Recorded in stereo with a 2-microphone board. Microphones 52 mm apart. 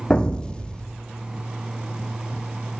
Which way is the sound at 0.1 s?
15° left (ahead or behind).